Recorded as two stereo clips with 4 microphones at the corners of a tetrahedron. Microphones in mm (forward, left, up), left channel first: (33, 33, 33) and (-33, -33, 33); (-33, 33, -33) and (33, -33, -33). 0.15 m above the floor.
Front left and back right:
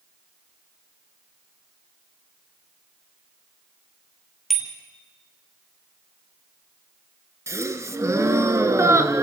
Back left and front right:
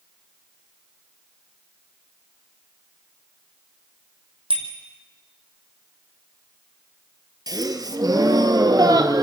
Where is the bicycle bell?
45° right, 3.5 m.